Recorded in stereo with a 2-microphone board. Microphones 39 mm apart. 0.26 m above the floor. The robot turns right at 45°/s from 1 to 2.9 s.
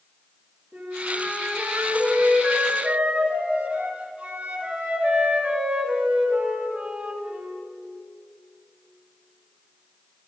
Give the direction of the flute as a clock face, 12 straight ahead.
4 o'clock.